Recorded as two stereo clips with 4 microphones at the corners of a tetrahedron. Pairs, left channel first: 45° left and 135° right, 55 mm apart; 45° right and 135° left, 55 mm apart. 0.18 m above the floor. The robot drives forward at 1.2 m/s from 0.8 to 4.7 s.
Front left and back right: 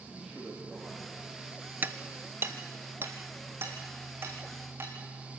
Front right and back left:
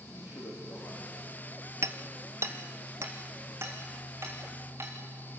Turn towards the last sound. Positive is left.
turn(degrees=180)